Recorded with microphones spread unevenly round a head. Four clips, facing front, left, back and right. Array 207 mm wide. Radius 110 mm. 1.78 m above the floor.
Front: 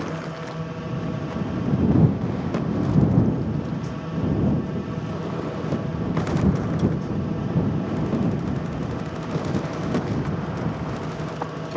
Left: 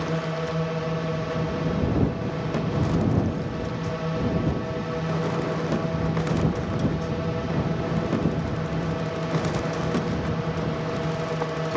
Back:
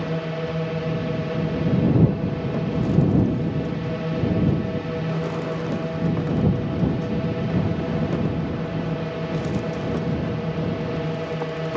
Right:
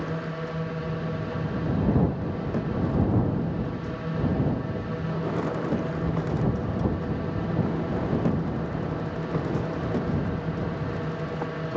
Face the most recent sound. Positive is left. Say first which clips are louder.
# left 4 dB, back 4 dB
turn(degrees=165)